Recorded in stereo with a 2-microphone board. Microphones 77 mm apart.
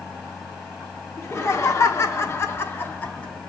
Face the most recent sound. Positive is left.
turn(degrees=20)  # may be behind; listen again after turning